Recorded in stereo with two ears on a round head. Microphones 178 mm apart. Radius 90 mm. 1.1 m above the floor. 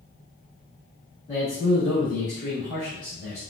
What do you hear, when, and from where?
1.3 s a man speaking: 20° left (ahead or behind), 1.9 m